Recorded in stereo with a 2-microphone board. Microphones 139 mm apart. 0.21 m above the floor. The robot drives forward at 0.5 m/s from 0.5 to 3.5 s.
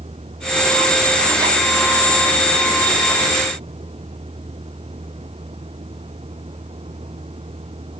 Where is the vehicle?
45° right (ahead or behind).